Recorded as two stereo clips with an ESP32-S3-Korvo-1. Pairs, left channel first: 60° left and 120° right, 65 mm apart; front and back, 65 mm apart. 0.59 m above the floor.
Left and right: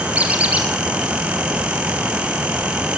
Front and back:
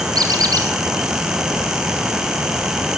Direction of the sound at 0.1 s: 170° left.